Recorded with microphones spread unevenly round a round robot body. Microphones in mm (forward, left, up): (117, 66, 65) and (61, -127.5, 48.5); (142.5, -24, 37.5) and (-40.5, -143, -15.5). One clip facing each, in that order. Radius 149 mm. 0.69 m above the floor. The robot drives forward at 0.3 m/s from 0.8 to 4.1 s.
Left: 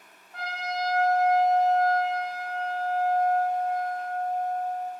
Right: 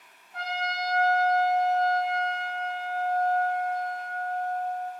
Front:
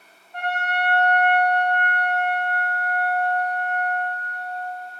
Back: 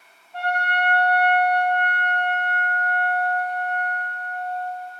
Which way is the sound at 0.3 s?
125° left.